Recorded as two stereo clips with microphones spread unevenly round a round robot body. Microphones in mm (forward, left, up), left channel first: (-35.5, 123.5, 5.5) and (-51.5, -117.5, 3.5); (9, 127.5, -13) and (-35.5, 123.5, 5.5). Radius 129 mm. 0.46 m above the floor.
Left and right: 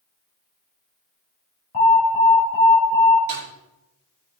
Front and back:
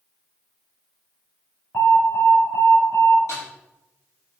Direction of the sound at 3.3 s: 40° right.